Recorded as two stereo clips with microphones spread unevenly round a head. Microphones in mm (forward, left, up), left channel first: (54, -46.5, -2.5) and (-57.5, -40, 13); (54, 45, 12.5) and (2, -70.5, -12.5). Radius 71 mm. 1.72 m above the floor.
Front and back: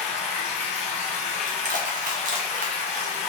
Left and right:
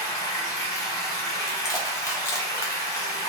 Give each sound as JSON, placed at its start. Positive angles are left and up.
{"t": 0.0, "sound": "running water", "azimuth_deg": 20, "distance_m": 1.1}
{"t": 1.5, "sound": "crushing", "azimuth_deg": 135, "distance_m": 0.7}